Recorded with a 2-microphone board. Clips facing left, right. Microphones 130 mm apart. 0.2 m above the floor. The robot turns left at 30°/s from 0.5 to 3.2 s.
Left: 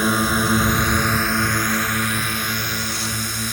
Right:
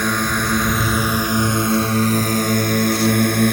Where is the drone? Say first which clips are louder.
Left 1 dB; 5° left; by 3.5 s 75° right.